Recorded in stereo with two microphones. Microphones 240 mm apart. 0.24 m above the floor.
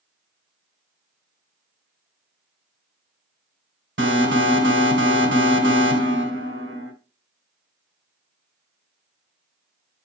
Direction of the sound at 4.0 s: 55° right (ahead or behind).